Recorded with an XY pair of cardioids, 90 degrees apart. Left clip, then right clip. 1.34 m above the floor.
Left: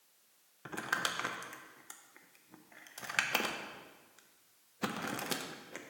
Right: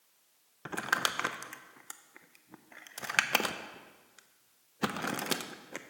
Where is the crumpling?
45° right, 0.6 m.